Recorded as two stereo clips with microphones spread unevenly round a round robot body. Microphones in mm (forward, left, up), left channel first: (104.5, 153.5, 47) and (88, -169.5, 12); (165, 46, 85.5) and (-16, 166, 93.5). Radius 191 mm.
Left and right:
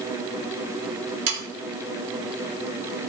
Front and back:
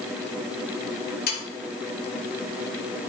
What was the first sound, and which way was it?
Sawing, 85° right.